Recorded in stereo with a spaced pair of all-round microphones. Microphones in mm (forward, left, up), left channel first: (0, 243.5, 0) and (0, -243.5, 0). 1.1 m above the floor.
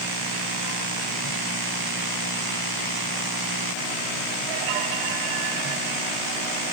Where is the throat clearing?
No throat clearing in this recording.